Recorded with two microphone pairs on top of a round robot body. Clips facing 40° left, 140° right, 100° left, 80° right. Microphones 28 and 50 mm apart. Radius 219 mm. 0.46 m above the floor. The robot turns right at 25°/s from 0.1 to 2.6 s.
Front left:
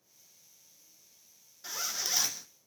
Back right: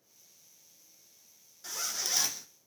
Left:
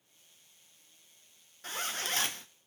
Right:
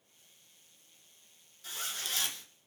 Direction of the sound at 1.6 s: 100° left.